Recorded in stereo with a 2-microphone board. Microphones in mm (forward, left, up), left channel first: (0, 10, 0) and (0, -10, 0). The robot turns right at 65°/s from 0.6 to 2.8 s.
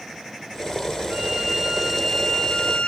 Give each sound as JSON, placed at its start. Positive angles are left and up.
{"t": 1.1, "sound": "a violin", "azimuth_deg": -55, "distance_m": 7.0}